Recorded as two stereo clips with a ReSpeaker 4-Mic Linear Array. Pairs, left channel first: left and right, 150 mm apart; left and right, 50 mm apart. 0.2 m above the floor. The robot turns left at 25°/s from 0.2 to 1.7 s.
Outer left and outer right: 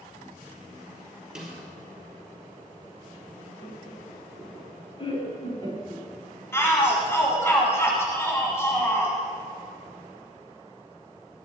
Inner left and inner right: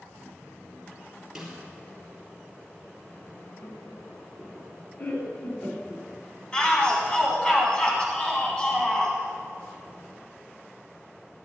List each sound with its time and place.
1.4 s a snare drum: 5° right (ahead or behind), 3.5 m; by 1.6 s centre (ahead or behind), 3.5 m
3.6 s laughter: 35° left (ahead or behind), 1.7 m
6.5 s a shout: 20° left (ahead or behind), 1.5 m